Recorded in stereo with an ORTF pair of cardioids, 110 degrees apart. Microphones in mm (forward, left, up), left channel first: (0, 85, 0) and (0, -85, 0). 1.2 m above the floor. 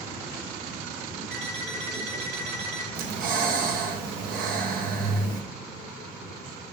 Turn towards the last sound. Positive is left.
turn(degrees=-60)